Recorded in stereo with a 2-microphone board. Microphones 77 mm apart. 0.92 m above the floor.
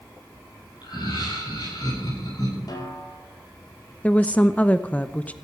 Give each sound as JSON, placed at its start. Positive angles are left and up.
{"t": 0.8, "sound": "laughter", "side_deg": 60, "distance_m": 9.5}
{"t": 2.7, "sound": "a snare drum", "side_deg": 55, "distance_m": 4.0}
{"t": 4.0, "sound": "a woman speaking", "side_deg": 20, "distance_m": 0.8}